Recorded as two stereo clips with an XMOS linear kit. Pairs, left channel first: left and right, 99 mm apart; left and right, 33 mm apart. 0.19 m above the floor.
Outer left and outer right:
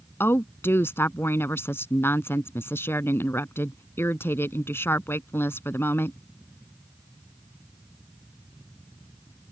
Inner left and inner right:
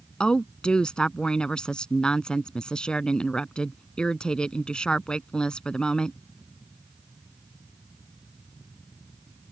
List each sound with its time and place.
0.2 s a woman speaking: 25° left (ahead or behind)